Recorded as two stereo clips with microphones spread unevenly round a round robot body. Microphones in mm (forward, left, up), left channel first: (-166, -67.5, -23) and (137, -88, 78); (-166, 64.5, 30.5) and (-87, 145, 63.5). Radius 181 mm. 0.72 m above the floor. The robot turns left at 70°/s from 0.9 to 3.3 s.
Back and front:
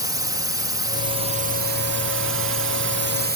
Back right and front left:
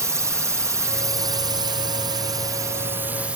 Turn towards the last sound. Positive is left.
turn(degrees=-60)